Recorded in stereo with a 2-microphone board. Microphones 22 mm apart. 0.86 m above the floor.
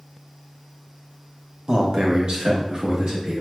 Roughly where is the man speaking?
Right.